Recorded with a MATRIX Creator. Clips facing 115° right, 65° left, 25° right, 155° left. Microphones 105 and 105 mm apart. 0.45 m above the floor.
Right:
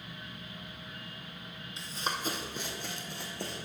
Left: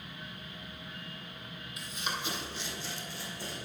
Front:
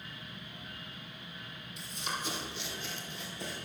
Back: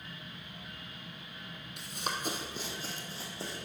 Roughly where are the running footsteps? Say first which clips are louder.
Right 2 dB, back 2 dB; behind.